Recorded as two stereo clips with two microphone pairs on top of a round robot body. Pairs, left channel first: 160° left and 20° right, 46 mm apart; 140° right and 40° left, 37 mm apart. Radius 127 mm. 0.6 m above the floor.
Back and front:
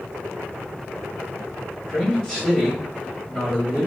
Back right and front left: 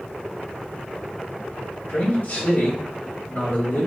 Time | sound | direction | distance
1.9 | a man speaking | 125° right | 2.5 m